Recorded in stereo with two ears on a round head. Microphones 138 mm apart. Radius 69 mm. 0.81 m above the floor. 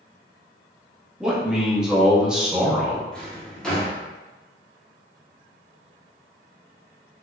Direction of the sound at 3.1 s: 5° left (ahead or behind).